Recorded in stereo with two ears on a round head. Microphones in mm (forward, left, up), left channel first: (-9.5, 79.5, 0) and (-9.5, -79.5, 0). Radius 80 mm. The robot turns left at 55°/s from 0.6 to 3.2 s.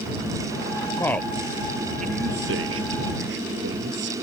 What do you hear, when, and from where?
1.0 s a man speaking: 15° left (ahead or behind); by 4.1 s 70° right (ahead or behind)